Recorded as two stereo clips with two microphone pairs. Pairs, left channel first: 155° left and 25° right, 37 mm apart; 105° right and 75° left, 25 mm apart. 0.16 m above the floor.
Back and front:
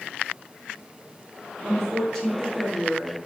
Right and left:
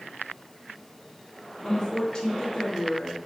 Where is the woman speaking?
135° right, 2 m.